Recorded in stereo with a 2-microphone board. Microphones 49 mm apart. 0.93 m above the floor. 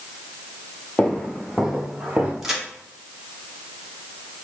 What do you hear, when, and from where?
1.0 s footsteps: 20° left (ahead or behind), 1.2 m; by 2.3 s 30° right (ahead or behind), 1.2 m
2.4 s a crack: 10° right (ahead or behind), 1.0 m